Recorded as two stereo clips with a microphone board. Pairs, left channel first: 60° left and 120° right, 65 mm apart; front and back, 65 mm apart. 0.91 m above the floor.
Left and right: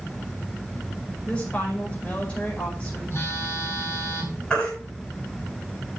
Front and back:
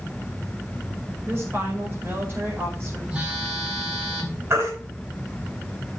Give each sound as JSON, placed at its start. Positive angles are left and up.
{"t": 1.2, "sound": "a woman speaking", "azimuth_deg": 130, "distance_m": 5.0}
{"t": 3.1, "sound": "a phone buzzing", "azimuth_deg": 110, "distance_m": 3.5}
{"t": 4.5, "sound": "a baby crying", "azimuth_deg": 135, "distance_m": 6.5}